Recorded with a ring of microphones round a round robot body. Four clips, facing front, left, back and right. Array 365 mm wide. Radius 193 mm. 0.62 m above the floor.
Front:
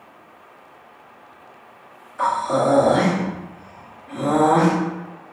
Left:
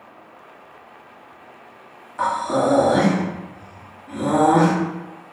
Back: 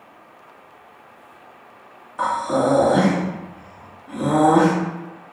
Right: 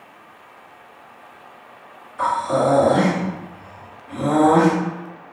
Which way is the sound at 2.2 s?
135° left.